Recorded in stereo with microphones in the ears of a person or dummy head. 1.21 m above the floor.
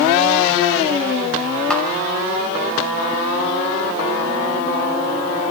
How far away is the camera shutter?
About 6 m.